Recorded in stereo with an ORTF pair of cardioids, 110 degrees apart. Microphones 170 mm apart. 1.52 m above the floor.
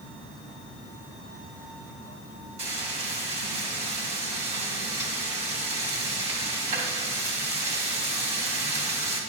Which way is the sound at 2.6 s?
40° right.